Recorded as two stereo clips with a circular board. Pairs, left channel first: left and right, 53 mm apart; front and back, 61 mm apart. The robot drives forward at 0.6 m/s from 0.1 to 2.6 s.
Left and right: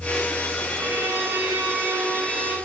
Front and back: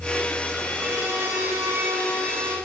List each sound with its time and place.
0.8 s a violin: 135° right, 2.5 m; by 2.6 s 150° right, 3.5 m